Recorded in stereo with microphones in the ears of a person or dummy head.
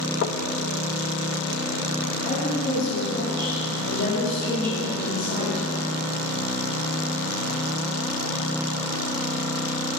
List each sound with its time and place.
0.2 s knocking: 45° left (ahead or behind), 0.6 m
2.2 s a woman speaking: 60° left (ahead or behind), 4.5 m